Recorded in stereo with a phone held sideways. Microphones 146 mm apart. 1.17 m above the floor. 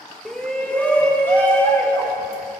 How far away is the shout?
About 1.0 m.